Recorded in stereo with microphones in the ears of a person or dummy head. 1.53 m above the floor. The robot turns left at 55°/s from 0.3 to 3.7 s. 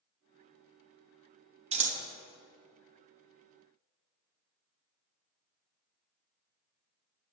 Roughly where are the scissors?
Right.